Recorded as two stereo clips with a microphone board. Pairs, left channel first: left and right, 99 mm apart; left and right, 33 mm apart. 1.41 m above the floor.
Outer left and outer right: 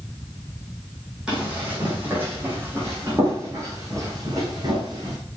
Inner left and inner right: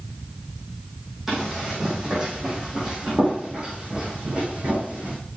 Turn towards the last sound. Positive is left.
turn(degrees=-45)  # may be behind; listen again after turning